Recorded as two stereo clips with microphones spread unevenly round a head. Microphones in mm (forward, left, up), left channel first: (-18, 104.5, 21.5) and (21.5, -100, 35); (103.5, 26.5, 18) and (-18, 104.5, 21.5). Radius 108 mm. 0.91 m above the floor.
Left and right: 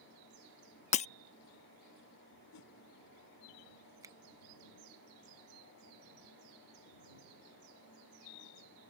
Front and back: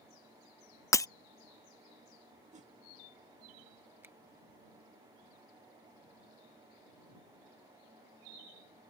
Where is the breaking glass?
40° left.